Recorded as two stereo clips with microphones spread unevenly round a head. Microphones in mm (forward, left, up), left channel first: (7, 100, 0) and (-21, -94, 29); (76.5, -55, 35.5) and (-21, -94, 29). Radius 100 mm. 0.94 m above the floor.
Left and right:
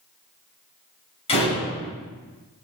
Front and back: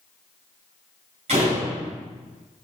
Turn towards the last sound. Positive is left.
turn(degrees=145)